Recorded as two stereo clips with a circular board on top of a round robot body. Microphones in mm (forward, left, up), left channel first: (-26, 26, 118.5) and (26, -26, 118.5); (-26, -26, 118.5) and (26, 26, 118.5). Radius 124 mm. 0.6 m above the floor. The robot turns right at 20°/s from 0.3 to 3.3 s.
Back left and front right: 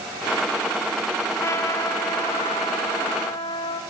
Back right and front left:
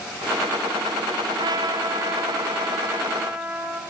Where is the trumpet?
80° left, 0.6 m; by 3.8 s 115° left, 0.6 m.